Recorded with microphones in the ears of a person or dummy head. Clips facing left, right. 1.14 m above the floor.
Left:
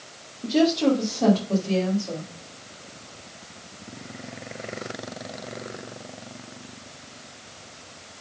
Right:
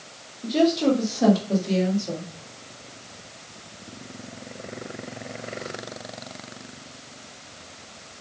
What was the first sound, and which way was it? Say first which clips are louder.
A woman speaking: even; 10° left (ahead or behind).